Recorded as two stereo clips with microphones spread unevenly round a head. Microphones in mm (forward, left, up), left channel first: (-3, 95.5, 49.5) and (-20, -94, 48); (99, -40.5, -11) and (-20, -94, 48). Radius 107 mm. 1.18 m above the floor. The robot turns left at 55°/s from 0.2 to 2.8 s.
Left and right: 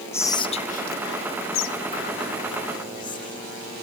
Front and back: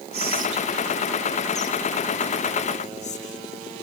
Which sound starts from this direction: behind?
Whispering, at 0.1 s.